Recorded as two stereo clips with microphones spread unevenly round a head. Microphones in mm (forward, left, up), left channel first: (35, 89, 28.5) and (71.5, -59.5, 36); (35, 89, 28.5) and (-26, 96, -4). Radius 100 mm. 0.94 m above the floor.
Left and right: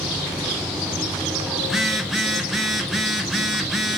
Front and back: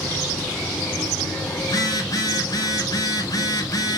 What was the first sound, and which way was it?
A phone buzzing, 15° left.